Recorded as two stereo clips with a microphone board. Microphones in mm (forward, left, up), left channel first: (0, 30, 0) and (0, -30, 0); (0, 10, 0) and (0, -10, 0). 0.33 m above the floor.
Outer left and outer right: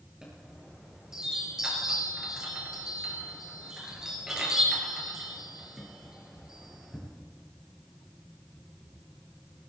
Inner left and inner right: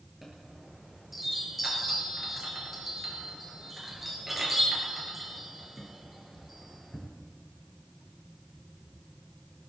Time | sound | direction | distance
0.2 | a chime | 10° right (ahead or behind) | 6 m